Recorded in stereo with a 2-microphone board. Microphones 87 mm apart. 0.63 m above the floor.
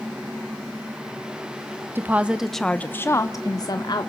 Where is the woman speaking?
25° right (ahead or behind), 0.8 m; by 4.1 s 55° left (ahead or behind), 1.3 m.